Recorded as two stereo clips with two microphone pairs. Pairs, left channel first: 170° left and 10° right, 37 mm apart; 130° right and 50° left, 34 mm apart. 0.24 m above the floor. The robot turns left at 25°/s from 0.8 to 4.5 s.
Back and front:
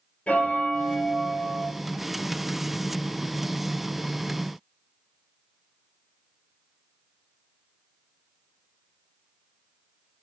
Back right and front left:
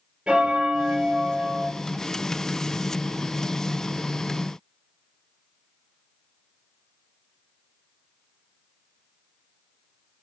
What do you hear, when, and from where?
0.3 s a bell: 115° left, 2.5 m; by 1.7 s 95° left, 2.5 m